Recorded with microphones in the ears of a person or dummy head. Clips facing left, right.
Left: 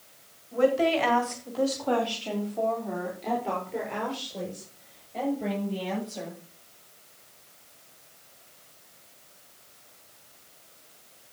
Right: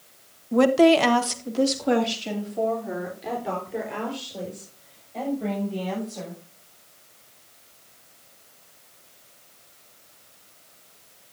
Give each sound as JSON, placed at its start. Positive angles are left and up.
{"t": 0.5, "sound": "a woman speaking", "side_deg": -75, "distance_m": 1.6}